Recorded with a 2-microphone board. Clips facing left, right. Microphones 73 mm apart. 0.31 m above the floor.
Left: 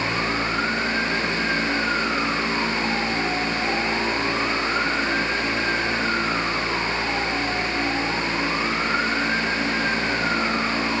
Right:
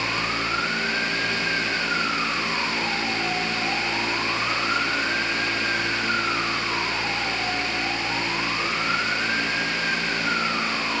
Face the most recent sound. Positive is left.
No sound to turn to.